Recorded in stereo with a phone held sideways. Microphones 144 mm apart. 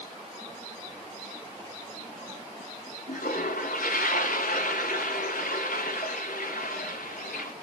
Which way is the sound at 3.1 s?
75° left (ahead or behind).